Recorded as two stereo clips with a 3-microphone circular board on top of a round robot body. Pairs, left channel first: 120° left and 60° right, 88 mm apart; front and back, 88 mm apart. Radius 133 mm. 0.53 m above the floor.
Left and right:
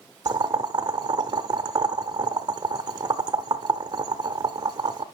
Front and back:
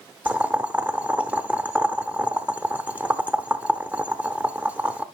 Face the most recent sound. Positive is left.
turn(degrees=-105)